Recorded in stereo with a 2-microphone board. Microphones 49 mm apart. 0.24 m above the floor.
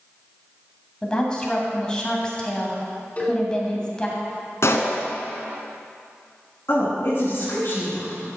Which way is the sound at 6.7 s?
50° left (ahead or behind).